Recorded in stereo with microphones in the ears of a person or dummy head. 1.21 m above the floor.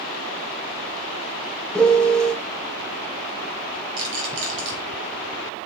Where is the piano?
5° left (ahead or behind), 0.5 m.